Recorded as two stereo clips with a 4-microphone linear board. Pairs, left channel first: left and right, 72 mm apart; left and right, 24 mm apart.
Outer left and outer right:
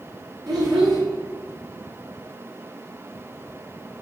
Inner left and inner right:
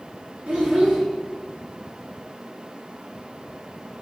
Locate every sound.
0.5 s a child speaking: 75° right (ahead or behind), 1.7 m